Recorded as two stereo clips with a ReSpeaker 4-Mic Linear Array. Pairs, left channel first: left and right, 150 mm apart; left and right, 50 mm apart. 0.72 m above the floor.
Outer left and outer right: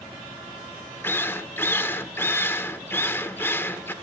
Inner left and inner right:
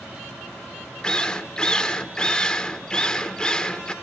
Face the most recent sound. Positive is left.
turn(degrees=15)  # may be behind; listen again after turning